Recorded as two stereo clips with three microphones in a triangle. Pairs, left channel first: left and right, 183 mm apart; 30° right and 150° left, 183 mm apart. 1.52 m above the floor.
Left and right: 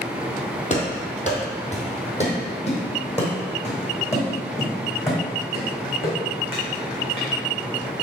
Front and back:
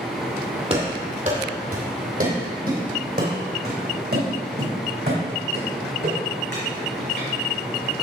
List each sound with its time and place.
0.7 s running footsteps: 115° left, 2 m; by 8.0 s 145° left, 5.5 m